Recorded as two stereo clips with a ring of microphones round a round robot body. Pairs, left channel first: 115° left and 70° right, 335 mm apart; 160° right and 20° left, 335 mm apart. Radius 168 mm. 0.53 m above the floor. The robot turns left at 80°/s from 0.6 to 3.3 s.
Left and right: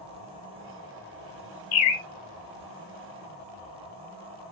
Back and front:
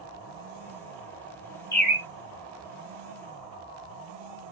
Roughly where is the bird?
Behind left.